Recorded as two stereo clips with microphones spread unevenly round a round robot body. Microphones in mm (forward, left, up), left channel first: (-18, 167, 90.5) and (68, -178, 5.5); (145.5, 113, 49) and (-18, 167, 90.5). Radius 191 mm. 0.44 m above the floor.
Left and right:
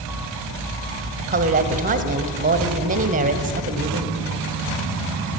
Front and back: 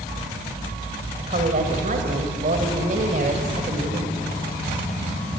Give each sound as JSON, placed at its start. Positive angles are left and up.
{"t": 1.2, "sound": "a woman speaking", "azimuth_deg": -140, "distance_m": 2.0}